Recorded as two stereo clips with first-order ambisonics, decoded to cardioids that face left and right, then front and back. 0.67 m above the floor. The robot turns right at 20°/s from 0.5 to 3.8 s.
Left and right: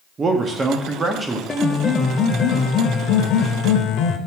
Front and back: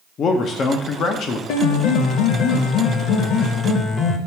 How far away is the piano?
About 0.6 m.